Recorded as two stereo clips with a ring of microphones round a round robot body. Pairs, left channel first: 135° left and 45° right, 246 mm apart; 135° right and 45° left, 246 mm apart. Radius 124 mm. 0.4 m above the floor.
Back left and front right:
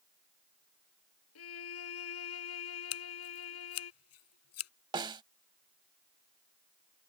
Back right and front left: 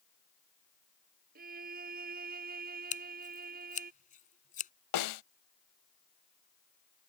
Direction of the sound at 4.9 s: 120° right.